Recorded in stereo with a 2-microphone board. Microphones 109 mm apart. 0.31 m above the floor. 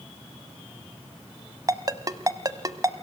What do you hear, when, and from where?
1.7 s a ringtone: 35° right (ahead or behind), 0.8 m